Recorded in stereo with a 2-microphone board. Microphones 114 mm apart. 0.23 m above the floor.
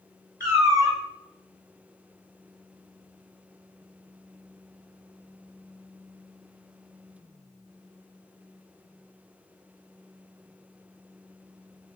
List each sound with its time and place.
0.4 s a cat meowing: 25° right (ahead or behind), 1.0 m